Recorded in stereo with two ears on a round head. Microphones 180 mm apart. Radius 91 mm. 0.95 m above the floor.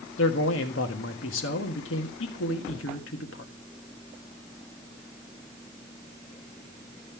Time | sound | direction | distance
0.2 | a man speaking | 65° left (ahead or behind) | 1.5 m